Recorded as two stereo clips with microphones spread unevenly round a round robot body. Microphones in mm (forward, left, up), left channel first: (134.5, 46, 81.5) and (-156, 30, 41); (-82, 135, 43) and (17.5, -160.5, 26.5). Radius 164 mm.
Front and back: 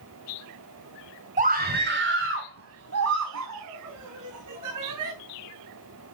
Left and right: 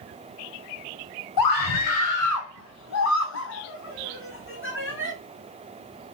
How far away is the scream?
About 2 m.